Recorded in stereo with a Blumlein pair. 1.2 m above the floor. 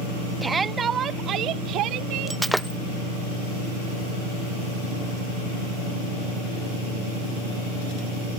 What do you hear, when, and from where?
0.4 s a shout: 10° right; by 2.4 s 40° right
2.3 s breaking glass: 5° right